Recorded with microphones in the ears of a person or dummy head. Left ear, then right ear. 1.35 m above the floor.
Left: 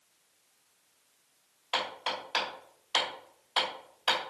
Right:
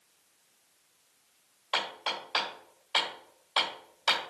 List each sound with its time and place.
1.7 s hammering: centre (ahead or behind), 2.5 m